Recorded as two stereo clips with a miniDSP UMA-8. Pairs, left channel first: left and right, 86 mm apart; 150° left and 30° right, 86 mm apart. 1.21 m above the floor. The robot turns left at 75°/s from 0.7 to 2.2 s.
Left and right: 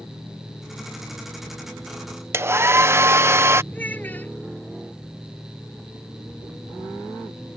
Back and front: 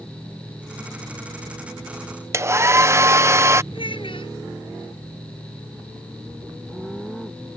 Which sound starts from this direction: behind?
A child speaking, at 3.7 s.